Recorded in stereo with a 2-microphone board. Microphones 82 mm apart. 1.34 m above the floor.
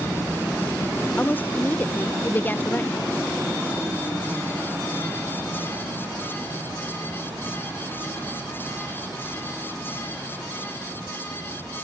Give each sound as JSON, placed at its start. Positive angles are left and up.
{"t": 1.2, "sound": "a woman speaking", "side_deg": 25, "distance_m": 0.9}